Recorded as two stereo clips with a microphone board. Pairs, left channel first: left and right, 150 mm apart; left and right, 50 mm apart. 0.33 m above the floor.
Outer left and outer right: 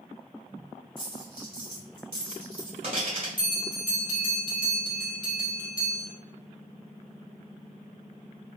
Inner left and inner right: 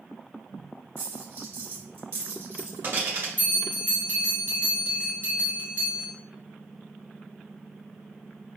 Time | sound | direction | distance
1.0 | a dropped coin | 45° right (ahead or behind) | 1.6 m
3.4 | a bell | 35° right (ahead or behind) | 1.2 m